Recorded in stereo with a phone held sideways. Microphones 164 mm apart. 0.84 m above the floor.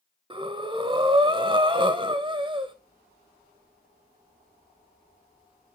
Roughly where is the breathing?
Right.